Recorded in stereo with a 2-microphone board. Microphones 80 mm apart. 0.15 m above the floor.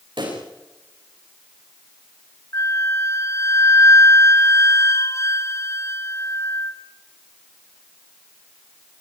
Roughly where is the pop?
Right.